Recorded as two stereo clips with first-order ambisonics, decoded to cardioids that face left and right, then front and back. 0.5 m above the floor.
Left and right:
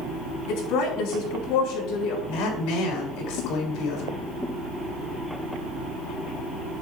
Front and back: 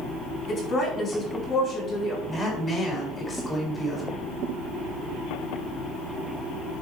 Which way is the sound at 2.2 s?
70° left.